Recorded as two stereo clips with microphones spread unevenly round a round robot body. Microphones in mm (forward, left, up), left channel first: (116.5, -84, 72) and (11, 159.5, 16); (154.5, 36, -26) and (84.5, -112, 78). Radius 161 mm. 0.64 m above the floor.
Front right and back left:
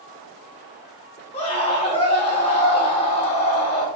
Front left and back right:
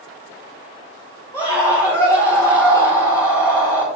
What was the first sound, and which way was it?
A scream, 5° left.